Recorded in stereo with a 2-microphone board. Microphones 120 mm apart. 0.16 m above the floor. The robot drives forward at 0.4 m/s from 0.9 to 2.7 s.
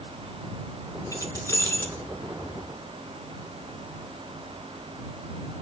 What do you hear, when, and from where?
1.1 s keys jangling: 25° left (ahead or behind), 0.8 m; by 2.0 s 20° left (ahead or behind), 1.0 m